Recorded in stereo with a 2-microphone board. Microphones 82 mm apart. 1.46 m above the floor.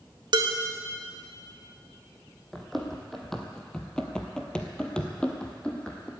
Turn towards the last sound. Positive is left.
turn(degrees=10)  # may be behind; listen again after turning